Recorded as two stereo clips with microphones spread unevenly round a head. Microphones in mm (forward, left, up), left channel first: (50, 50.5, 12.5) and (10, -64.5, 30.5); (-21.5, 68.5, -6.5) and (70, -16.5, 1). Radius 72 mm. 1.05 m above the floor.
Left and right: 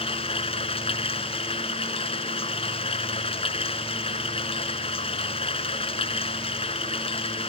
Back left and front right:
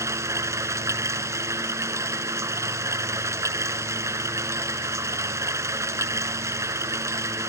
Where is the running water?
25° left.